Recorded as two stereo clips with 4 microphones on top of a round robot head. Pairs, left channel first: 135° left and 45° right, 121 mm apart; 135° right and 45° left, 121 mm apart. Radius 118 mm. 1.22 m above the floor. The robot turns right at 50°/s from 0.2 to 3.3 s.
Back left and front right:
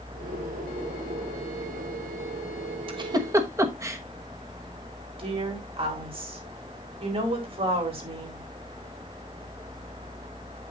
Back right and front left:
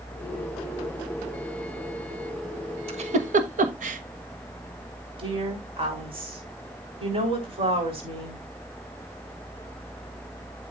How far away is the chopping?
No chopping in this recording.